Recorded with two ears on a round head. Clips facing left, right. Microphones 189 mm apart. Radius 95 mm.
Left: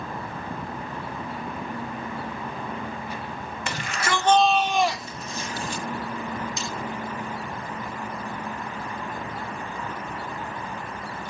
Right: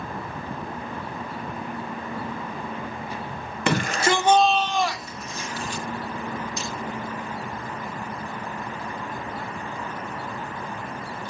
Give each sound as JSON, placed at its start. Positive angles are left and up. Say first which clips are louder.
{"t": 3.7, "sound": "a shout", "louder": "right 7 dB", "side_deg": -50, "distance_m": 1.0}
{"t": 6.6, "sound": "cutlery clinking", "louder": "even", "side_deg": 70, "distance_m": 7.0}